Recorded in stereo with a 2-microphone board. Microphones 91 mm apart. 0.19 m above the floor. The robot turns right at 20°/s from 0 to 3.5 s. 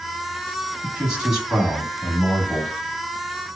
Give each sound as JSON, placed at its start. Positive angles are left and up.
{"t": 0.8, "sound": "a man speaking", "side_deg": -10, "distance_m": 1.0}